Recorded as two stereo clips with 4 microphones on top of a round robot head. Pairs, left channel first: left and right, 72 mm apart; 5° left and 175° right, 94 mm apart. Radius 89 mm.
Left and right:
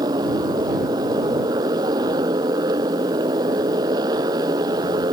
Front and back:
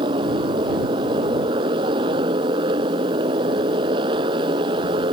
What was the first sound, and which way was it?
A motorcycle, 130° right.